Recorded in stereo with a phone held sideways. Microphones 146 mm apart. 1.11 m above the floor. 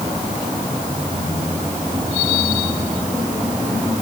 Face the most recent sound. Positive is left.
No sound to turn to.